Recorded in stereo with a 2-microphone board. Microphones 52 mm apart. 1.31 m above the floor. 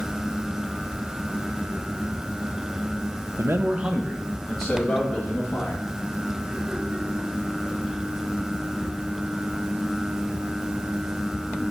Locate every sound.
3.4 s a man speaking: 75° right (ahead or behind), 0.7 m; by 5.8 s 20° left (ahead or behind), 3.5 m